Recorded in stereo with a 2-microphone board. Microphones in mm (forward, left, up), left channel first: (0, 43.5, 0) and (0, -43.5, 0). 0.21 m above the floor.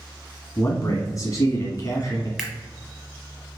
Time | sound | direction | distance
0.6 | a man speaking | 40° left (ahead or behind) | 1.3 m
2.4 | a camera shutter | 5° right (ahead or behind) | 1.0 m